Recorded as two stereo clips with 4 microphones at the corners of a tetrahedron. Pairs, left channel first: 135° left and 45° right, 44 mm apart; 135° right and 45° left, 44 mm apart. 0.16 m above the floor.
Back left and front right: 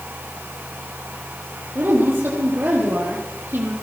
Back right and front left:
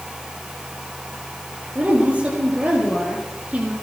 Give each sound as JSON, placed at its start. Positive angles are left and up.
{"t": 1.8, "sound": "a woman speaking", "azimuth_deg": -10, "distance_m": 5.0}